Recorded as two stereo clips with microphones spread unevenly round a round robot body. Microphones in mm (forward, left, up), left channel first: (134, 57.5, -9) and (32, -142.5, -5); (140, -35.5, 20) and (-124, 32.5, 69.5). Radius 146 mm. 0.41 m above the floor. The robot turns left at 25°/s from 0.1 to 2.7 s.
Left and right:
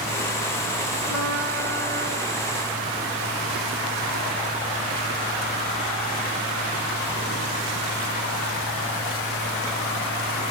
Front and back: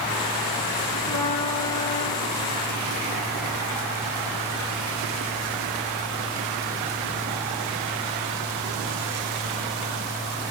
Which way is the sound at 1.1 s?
60° left.